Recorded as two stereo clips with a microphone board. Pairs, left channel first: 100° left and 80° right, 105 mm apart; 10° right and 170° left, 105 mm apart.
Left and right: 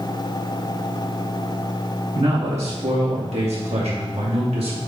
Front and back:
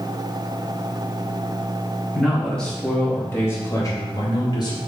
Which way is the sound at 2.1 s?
100° right.